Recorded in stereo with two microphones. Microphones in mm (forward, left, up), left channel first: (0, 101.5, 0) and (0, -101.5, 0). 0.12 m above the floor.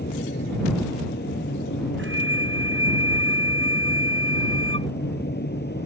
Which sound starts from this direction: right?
A flute, at 2.0 s.